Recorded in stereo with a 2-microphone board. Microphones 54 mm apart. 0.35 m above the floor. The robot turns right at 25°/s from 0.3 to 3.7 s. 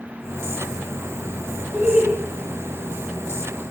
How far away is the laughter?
About 2.5 m.